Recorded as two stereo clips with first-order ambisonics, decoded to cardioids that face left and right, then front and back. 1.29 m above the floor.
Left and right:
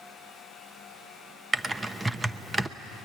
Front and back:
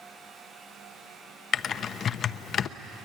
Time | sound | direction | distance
1.5 | typing on a keyboard | 20° right | 0.5 m